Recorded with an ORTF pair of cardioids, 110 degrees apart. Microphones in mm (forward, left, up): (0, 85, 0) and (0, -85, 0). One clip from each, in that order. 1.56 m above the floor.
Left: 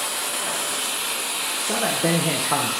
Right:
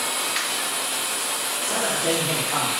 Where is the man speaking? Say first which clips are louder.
Left 1 dB; 60° left, 0.9 m.